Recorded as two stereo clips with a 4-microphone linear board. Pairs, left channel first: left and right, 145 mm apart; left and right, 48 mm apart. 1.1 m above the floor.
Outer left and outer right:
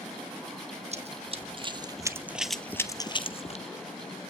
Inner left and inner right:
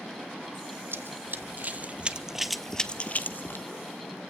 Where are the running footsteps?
50° right (ahead or behind), 2 m; by 3.6 s 50° left (ahead or behind), 1.6 m.